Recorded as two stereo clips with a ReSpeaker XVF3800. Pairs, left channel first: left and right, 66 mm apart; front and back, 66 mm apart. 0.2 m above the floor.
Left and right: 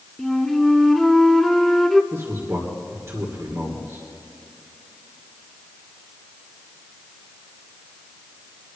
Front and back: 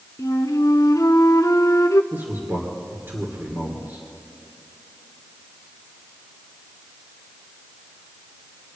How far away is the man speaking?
About 3 m.